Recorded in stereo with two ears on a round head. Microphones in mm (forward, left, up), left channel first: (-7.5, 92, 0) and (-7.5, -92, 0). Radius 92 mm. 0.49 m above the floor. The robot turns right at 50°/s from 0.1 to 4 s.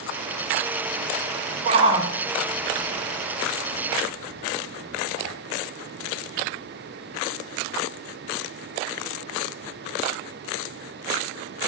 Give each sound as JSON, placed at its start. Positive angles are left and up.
{"t": 1.6, "sound": "a shout", "side_deg": -30, "distance_m": 2.0}